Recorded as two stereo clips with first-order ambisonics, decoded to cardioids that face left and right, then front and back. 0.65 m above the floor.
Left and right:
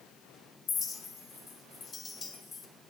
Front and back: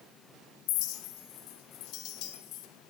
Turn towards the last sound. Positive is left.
turn(degrees=20)